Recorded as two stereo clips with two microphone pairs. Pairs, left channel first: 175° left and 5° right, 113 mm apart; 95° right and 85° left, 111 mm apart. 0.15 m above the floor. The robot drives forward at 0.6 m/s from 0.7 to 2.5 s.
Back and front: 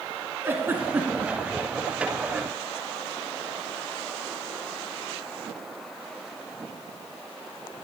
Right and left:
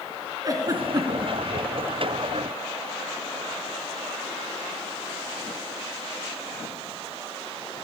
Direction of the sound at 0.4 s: 55° left.